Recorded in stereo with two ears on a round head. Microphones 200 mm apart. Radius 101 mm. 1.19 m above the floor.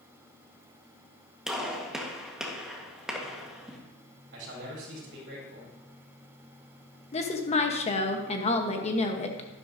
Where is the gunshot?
Centre (ahead or behind), 1.5 m.